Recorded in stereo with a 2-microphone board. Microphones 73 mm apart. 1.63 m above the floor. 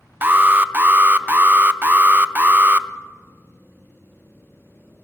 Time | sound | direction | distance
0.2 | an alarm | 30° right (ahead or behind) | 0.6 m